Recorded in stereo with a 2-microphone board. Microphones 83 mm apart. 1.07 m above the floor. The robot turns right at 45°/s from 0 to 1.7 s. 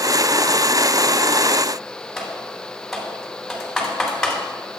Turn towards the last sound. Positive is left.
turn(degrees=0)  # may be behind; listen again after turning